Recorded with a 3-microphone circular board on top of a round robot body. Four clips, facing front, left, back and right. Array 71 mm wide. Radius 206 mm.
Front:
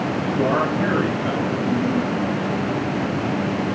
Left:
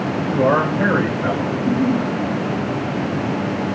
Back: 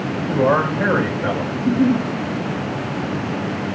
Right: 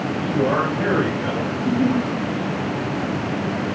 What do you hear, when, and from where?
0.2 s a man speaking: 135° left, 5 m; by 1.4 s 140° left, 4 m
1.5 s a giggle: 165° left, 2.5 m